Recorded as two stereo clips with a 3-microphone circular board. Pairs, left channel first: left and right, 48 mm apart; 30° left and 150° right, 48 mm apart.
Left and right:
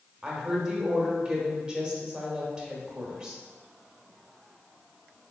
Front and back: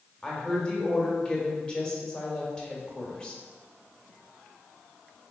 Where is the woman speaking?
35° right, 1.0 m.